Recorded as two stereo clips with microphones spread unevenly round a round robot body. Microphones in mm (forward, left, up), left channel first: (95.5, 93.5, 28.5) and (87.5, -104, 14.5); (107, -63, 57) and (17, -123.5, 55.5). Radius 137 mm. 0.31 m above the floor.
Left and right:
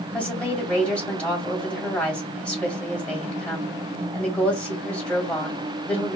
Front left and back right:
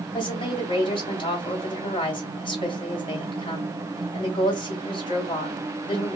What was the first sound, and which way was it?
A woman speaking, straight ahead.